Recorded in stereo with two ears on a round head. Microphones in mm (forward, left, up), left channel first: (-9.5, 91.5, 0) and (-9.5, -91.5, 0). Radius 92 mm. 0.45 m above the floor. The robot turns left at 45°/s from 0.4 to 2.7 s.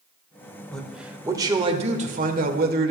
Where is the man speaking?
5° left, 1.7 m; by 2.9 s 80° right, 1.7 m.